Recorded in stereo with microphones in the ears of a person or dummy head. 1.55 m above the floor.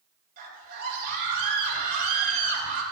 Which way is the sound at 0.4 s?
55° right (ahead or behind).